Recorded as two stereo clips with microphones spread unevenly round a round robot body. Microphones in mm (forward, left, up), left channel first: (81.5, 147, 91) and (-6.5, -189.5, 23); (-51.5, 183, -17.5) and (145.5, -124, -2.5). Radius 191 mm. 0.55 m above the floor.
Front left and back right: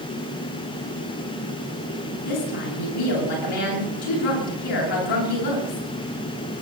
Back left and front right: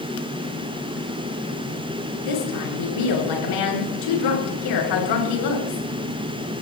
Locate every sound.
2.2 s a woman speaking: 105° left, 8.5 m